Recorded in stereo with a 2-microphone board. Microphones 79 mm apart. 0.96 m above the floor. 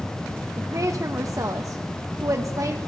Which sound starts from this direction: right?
A woman speaking, at 0.6 s.